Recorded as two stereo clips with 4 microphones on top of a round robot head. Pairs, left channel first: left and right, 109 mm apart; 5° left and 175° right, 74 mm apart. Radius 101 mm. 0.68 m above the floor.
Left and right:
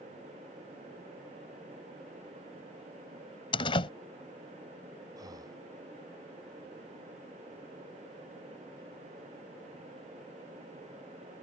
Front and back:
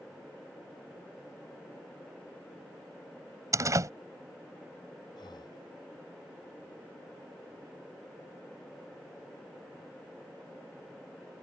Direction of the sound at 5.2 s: 35° right.